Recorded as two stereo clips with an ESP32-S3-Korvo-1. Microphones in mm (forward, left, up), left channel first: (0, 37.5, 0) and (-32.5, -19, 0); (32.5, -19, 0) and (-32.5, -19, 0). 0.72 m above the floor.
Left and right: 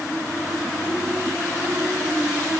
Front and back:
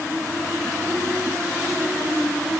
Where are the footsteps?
No footsteps in this recording.